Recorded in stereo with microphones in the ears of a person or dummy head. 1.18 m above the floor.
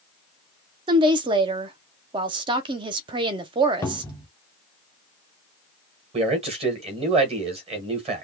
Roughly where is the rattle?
No rattle in this recording.